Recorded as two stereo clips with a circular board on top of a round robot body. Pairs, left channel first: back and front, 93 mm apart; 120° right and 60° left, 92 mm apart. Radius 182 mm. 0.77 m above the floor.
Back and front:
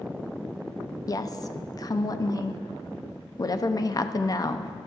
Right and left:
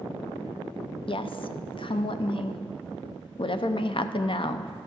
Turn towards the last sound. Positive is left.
turn(degrees=-135)